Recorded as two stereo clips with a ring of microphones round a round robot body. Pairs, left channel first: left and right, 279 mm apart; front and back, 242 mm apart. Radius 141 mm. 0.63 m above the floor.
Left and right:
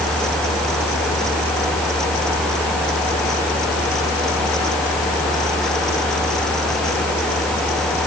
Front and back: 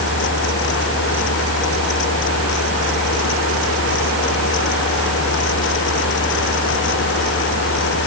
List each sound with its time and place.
Only background noise.